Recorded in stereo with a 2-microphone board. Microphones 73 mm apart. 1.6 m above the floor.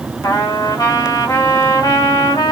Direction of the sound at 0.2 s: 60° left (ahead or behind).